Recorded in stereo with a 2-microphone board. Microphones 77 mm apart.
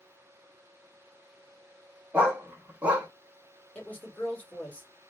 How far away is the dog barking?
About 0.9 m.